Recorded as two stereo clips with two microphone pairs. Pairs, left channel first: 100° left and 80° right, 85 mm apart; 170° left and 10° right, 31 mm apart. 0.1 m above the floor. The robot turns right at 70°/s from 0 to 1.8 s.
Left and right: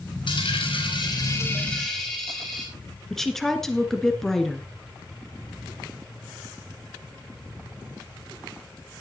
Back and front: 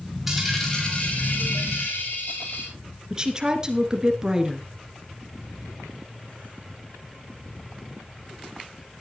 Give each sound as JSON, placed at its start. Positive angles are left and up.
{"t": 0.3, "sound": "a dropped coin", "azimuth_deg": 75, "distance_m": 5.5}
{"t": 3.1, "sound": "a woman speaking", "azimuth_deg": 20, "distance_m": 1.5}